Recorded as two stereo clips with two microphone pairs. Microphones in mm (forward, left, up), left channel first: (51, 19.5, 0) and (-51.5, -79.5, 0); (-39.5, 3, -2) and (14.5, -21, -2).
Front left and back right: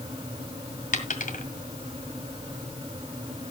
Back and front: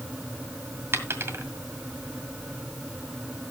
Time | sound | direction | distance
0.9 | a dropped coin | 20° left | 1.8 m